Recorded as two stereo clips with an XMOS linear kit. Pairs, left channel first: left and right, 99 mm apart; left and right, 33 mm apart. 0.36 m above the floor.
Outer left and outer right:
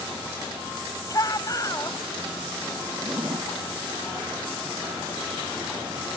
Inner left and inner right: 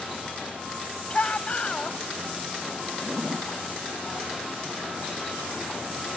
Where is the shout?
40° left (ahead or behind).